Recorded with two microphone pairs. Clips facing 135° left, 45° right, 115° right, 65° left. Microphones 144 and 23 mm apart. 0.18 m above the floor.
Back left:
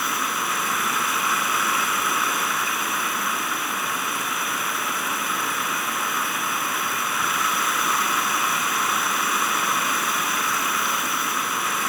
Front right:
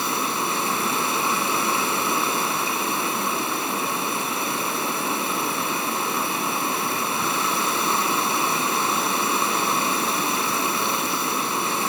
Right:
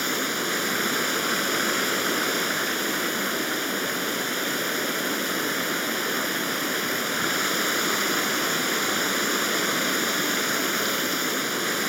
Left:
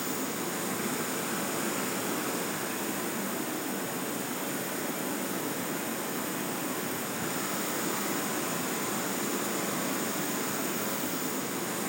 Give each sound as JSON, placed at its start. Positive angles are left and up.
{"t": 0.0, "sound": "running water", "azimuth_deg": -100, "distance_m": 1.9}